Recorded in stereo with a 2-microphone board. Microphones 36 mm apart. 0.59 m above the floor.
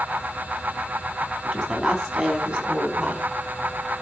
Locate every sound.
1.4 s a woman speaking: 15° right (ahead or behind), 4.5 m; by 3.2 s 30° right (ahead or behind), 4 m